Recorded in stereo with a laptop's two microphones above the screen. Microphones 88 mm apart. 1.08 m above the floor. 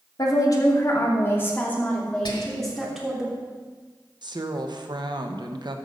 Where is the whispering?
65° left (ahead or behind), 1.2 m.